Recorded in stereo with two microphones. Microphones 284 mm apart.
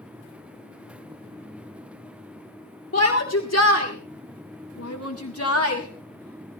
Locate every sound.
2.9 s a shout: 45° left (ahead or behind), 2 m